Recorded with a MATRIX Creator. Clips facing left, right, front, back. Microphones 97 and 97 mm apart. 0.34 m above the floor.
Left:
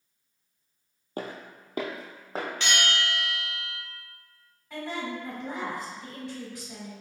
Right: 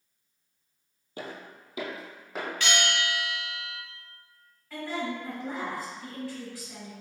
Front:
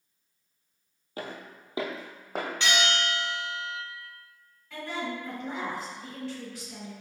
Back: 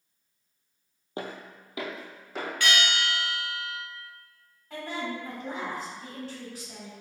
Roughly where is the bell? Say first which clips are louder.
Right 1 dB, even; ahead left.